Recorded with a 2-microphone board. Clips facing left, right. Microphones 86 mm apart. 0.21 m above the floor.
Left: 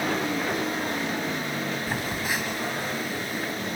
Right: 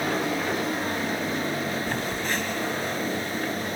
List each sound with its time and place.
1.9 s a phone buzzing: 10° left (ahead or behind), 1.1 m